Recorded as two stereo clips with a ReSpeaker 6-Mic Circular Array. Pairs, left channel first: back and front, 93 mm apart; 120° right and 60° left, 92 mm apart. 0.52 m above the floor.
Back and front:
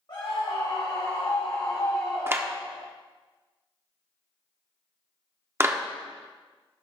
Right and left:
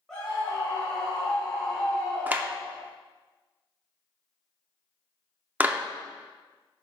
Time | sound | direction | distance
0.1 | a scream | 155° left | 2.5 m
2.3 | a clap | 15° left | 0.5 m